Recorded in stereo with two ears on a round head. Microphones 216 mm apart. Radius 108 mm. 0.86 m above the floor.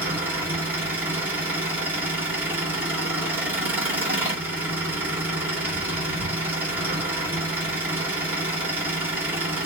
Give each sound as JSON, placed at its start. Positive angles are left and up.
{"t": 0.0, "sound": "an engine running", "side_deg": -10, "distance_m": 1.6}